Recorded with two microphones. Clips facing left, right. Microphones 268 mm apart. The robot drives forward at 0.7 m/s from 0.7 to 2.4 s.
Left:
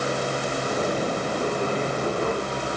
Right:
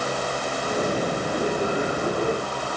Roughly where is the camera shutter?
I don't hear a camera shutter.